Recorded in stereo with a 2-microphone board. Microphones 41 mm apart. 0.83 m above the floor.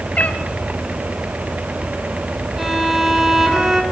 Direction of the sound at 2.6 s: 5° right (ahead or behind).